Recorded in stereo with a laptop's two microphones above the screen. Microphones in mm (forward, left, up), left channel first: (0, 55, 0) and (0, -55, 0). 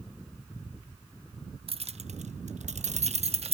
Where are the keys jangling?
55° right (ahead or behind), 0.7 m; by 3.5 s 60° right (ahead or behind), 1.0 m.